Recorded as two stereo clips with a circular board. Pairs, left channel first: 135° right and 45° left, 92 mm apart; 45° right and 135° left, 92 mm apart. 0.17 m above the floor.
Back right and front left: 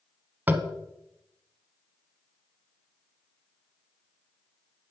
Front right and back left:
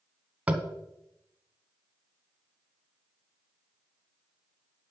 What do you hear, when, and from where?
0.5 s tapping: 85° left, 1.1 m